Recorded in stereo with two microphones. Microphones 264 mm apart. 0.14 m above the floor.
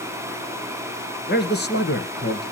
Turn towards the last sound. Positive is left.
turn(degrees=40)  # may be behind; listen again after turning